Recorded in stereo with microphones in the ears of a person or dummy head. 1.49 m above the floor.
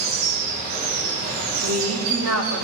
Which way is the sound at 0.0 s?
50° right (ahead or behind).